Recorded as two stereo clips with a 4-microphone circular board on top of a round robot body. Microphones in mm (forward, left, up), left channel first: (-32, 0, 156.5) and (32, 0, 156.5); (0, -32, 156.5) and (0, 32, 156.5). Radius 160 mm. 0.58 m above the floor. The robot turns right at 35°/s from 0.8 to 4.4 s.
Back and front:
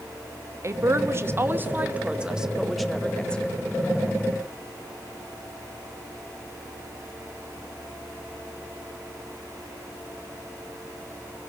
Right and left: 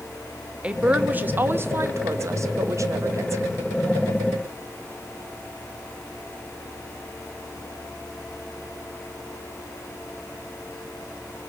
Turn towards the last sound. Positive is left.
turn(degrees=145)